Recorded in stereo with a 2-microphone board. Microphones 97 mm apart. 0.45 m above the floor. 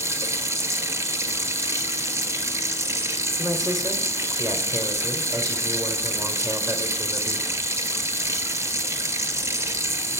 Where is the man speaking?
35° right (ahead or behind), 1.2 m.